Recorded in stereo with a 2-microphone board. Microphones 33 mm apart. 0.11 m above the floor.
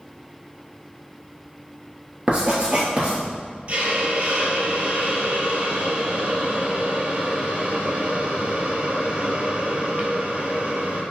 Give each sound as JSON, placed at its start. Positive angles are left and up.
{"t": 2.3, "sound": "writing", "side_deg": -35, "distance_m": 1.4}
{"t": 3.7, "sound": "a hiss", "side_deg": -40, "distance_m": 0.8}